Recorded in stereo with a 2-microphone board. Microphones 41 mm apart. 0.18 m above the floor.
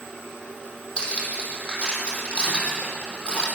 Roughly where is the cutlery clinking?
Left.